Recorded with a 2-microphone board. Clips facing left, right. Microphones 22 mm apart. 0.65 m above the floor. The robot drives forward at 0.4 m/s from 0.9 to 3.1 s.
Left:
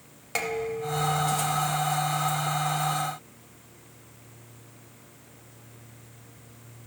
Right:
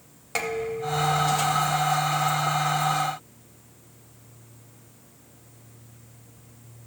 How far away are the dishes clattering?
About 3 m.